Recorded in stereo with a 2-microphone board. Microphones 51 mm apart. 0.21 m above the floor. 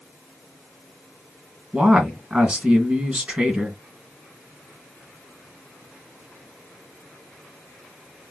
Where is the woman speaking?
25° right (ahead or behind), 2 m.